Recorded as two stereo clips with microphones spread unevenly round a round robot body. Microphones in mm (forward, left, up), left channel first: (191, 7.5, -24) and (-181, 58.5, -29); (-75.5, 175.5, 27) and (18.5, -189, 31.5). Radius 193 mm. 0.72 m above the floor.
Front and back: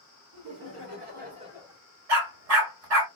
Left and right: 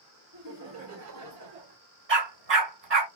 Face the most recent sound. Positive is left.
turn(degrees=-135)